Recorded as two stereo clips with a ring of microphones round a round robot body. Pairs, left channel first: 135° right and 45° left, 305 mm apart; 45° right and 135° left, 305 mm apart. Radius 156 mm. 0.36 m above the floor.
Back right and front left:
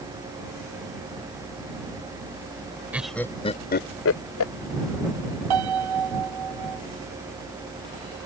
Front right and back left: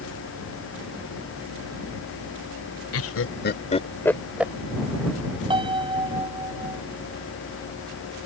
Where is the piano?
60° left.